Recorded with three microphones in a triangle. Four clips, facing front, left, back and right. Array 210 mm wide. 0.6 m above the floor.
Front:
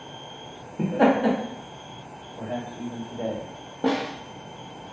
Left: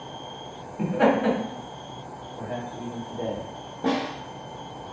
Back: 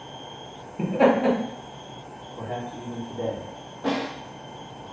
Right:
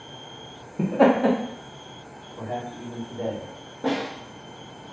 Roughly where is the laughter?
Right.